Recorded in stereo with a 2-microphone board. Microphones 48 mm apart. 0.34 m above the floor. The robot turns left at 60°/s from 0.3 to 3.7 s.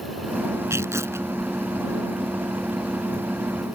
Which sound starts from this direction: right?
Tearing paper, at 0.7 s.